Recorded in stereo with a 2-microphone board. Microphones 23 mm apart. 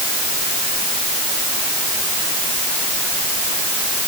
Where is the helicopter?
No helicopter in this recording.